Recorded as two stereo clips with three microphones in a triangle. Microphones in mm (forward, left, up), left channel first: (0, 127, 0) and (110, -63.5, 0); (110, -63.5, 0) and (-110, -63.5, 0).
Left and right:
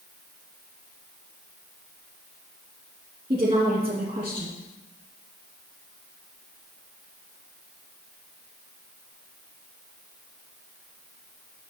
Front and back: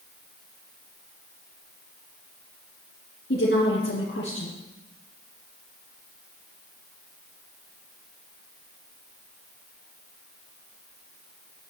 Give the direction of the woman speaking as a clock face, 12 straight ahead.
12 o'clock.